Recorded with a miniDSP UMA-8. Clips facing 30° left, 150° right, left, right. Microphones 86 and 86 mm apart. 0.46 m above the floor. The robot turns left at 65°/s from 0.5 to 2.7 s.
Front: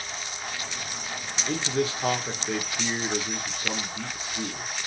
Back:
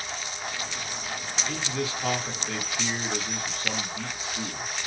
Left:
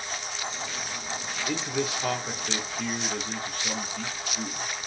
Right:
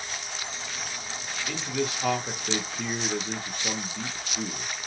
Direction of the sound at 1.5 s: 40° left.